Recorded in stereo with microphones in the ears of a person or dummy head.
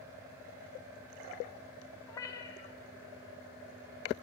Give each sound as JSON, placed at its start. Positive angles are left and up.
{"t": 2.1, "sound": "a cat meowing", "side_deg": 15, "distance_m": 0.6}